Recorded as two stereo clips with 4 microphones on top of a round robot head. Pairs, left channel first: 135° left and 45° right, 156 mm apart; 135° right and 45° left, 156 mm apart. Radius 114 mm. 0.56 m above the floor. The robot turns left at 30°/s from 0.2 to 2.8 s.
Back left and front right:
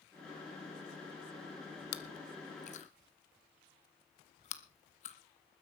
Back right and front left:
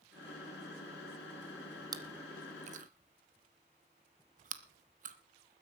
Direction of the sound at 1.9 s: 115° left.